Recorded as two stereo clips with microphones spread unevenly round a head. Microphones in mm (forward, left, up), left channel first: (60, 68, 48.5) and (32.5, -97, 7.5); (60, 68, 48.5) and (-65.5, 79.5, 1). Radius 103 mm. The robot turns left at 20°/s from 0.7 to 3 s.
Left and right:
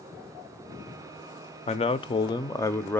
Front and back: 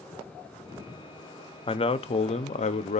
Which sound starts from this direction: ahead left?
A man speaking, at 1.7 s.